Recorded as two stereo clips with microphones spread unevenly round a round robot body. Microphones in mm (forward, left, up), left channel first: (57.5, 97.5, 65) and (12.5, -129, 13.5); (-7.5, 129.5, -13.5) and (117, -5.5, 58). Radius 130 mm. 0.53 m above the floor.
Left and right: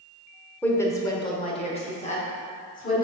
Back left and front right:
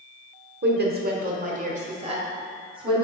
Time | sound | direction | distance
0.6 | a woman speaking | 10° right | 1.4 m